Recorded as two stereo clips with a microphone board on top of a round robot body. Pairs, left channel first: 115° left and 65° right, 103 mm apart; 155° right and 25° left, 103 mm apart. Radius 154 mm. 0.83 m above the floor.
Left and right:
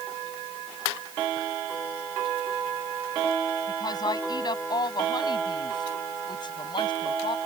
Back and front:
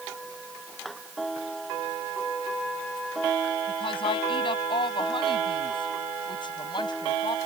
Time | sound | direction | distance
3.7 | a woman speaking | 165° left | ?